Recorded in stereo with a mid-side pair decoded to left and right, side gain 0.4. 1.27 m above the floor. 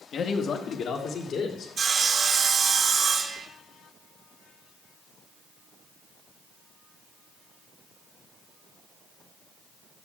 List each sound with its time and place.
0.1 s a man speaking: 60° left, 1.3 m; by 1.7 s 65° left, 3.5 m
1.8 s sawing: 50° right, 1.5 m